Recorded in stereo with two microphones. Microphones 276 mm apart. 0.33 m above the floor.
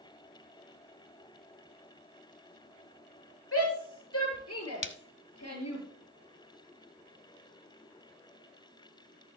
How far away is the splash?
About 0.8 m.